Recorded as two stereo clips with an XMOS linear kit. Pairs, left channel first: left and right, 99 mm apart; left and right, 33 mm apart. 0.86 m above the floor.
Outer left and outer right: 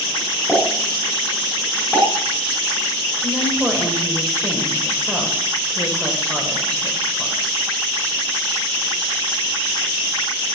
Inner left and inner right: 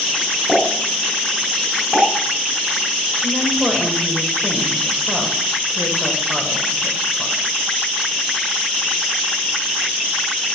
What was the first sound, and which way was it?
A pop, 5° left (ahead or behind).